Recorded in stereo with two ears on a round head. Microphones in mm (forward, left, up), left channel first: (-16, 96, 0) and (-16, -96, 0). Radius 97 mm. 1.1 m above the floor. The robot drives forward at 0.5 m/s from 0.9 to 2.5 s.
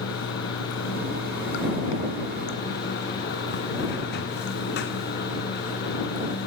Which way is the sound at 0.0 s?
65° left (ahead or behind).